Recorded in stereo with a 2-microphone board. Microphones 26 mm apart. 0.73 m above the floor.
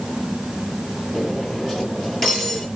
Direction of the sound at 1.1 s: 15° left (ahead or behind).